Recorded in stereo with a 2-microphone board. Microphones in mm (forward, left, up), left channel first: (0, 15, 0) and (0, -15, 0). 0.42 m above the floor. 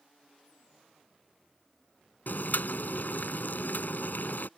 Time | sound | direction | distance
2.3 | boiling | 75° left (ahead or behind) | ?